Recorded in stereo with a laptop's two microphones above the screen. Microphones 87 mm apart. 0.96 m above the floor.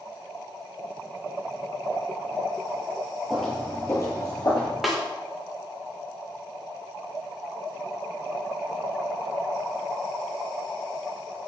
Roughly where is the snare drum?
Centre.